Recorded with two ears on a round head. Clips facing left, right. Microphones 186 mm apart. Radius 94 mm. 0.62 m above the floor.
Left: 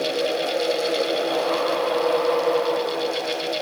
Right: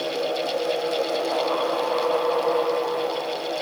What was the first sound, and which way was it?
Only background noise.